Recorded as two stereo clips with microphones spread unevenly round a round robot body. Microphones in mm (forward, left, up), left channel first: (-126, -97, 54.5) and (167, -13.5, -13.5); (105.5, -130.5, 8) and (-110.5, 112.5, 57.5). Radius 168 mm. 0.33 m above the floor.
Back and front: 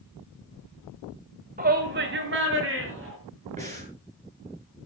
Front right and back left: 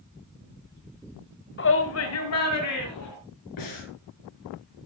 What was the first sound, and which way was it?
A shout, 20° right.